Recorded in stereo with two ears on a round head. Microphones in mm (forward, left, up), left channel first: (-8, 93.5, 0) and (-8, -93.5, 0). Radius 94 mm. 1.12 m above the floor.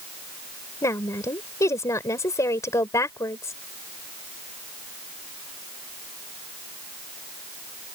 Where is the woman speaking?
15° left (ahead or behind).